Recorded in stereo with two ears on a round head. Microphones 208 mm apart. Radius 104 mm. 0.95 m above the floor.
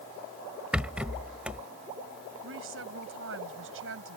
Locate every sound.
0.7 s a rattle: 5° right (ahead or behind)
2.4 s a woman speaking: 60° right (ahead or behind)